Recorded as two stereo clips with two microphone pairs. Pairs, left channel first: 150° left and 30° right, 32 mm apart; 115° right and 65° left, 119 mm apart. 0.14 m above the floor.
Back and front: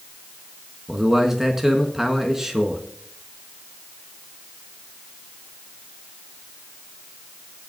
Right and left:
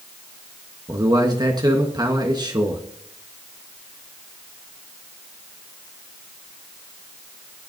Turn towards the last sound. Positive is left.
turn(degrees=40)